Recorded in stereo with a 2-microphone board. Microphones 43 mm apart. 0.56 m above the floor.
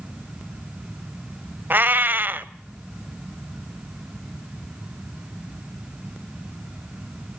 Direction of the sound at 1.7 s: 45° right (ahead or behind).